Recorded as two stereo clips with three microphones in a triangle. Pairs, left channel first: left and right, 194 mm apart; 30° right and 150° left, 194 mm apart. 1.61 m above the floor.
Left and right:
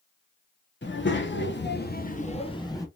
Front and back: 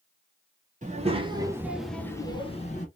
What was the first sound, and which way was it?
A child speaking, 100° left.